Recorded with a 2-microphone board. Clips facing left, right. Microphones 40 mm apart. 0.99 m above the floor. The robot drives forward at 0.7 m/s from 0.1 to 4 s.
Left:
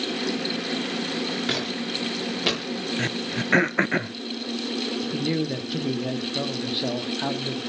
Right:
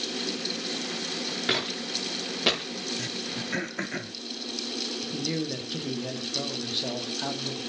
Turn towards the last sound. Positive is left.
turn(degrees=20)  # may be behind; listen again after turning